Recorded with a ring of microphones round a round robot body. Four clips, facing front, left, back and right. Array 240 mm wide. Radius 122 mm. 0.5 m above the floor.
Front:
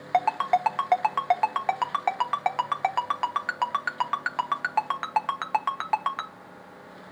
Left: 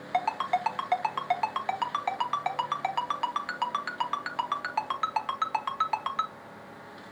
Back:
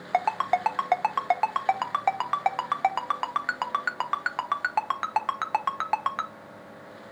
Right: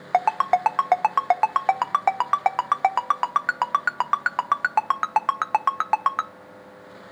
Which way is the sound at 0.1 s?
90° right.